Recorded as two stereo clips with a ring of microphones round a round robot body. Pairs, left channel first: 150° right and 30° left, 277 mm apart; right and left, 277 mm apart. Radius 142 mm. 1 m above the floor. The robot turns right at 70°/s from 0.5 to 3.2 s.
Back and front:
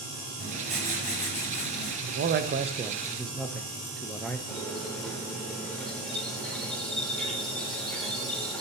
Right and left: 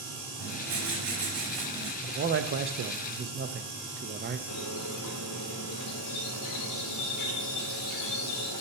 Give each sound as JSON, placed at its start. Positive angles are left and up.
{"t": 0.4, "sound": "writing", "azimuth_deg": 105, "distance_m": 5.0}
{"t": 2.0, "sound": "a man speaking", "azimuth_deg": 40, "distance_m": 0.7}
{"t": 4.5, "sound": "a squeak", "azimuth_deg": -60, "distance_m": 1.3}